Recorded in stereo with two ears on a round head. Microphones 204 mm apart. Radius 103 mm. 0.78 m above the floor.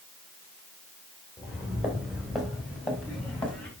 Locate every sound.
1.4 s footsteps: 5° right (ahead or behind), 3.5 m; by 3.7 s 5° left (ahead or behind), 5 m